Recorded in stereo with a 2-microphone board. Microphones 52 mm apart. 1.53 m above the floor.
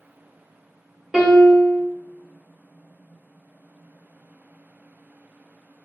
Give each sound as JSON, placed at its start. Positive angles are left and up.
{"t": 1.1, "sound": "a piano", "side_deg": -20, "distance_m": 1.5}